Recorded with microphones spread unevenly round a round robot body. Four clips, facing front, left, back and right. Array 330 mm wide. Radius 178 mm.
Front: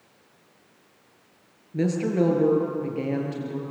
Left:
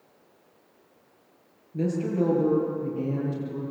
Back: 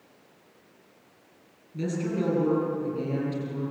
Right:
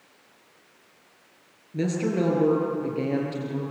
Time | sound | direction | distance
1.7 | a woman speaking | 40° right | 8 m